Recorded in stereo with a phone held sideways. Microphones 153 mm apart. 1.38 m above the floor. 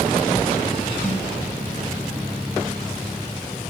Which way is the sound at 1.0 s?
10° left (ahead or behind).